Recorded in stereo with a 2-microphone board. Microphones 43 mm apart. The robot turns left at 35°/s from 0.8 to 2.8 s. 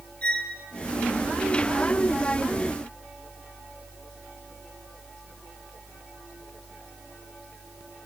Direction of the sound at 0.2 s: 30° left (ahead or behind).